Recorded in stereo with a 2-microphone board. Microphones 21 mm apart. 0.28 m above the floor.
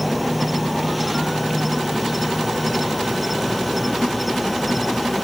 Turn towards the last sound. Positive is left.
turn(degrees=-5)  # may be behind; listen again after turning